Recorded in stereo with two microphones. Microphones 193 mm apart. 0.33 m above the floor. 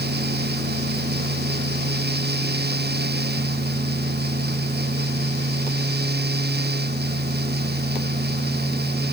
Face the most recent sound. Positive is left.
No sound to turn to.